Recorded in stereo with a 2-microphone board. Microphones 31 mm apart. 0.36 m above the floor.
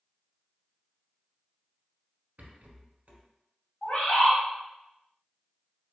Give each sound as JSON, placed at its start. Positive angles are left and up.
{"t": 2.4, "sound": "a rattle", "side_deg": -50, "distance_m": 0.9}
{"t": 3.8, "sound": "a bird", "side_deg": 40, "distance_m": 1.5}